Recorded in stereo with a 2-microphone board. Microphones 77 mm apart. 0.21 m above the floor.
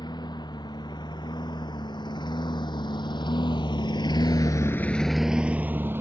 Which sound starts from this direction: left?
A lawn mower, at 0.0 s.